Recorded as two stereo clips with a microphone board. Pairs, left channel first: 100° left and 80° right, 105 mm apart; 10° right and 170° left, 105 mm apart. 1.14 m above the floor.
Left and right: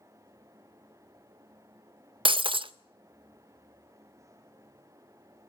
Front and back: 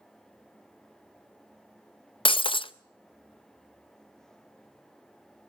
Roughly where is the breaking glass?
Ahead right.